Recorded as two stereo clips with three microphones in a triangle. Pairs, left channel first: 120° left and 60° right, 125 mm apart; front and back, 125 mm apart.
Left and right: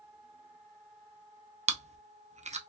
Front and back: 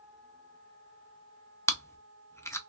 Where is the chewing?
70° right, 0.5 m.